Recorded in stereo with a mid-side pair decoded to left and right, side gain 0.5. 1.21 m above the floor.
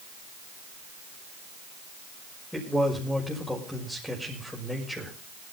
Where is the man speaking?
10° left, 6 m.